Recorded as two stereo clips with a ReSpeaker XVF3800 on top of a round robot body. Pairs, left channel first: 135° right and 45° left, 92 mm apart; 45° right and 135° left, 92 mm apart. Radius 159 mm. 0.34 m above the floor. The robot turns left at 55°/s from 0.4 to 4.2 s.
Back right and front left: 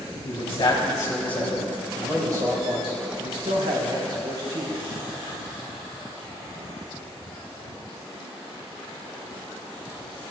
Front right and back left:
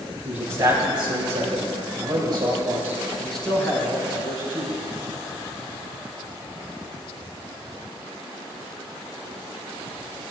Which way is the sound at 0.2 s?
160° right.